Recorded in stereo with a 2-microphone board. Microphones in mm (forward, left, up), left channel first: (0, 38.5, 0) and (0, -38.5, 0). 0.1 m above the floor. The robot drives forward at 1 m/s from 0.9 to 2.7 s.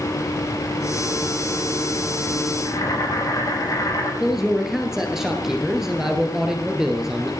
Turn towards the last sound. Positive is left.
turn(degrees=-5)  # may be behind; listen again after turning